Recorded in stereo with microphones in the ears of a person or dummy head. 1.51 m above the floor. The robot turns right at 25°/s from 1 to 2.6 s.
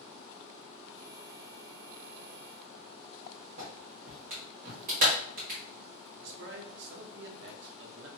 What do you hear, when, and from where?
3.6 s a clap: 45° right (ahead or behind), 1.3 m
6.2 s a man speaking: 60° right (ahead or behind), 0.7 m